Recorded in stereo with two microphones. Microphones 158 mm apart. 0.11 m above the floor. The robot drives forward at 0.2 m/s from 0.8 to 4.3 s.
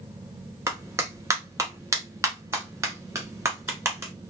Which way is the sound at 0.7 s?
20° right (ahead or behind).